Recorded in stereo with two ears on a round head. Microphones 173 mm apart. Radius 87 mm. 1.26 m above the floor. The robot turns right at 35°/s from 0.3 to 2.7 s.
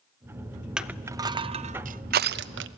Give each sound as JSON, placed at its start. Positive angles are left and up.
{"t": 0.8, "sound": "crushing", "side_deg": -5, "distance_m": 0.7}